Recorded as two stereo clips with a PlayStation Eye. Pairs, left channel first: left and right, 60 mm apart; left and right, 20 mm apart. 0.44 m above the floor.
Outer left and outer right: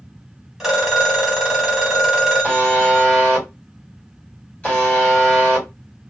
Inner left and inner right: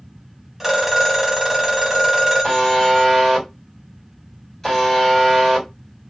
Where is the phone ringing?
10° right (ahead or behind), 1.2 m.